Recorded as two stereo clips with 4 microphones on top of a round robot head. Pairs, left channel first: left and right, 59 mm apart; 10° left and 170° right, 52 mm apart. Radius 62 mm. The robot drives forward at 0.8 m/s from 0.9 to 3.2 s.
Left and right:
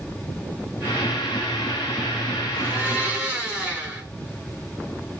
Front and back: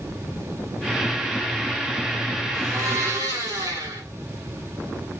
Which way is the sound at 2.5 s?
160° right.